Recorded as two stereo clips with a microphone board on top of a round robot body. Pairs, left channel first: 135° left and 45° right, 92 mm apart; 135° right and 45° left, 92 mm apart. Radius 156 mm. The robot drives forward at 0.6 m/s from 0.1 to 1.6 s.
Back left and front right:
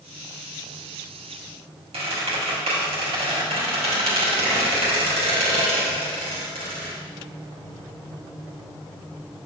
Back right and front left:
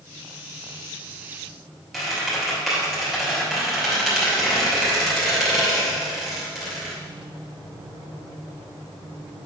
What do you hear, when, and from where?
1.9 s a squeak: 45° right, 2.5 m